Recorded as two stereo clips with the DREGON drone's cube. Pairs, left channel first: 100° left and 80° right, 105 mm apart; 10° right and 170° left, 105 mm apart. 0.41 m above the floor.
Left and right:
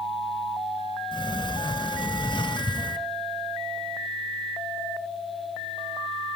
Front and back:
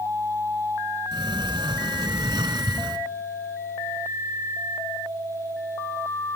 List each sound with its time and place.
1.1 s a sliding door: 130° left, 1.2 m